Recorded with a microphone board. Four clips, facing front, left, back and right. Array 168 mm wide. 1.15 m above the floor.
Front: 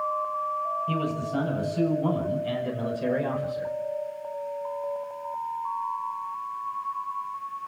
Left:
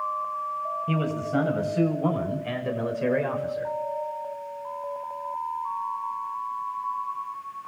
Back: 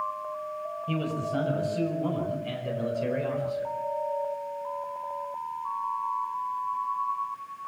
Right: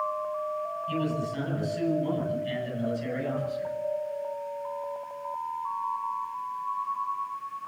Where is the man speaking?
90° left, 6.5 m; by 3.7 s 70° left, 4.5 m.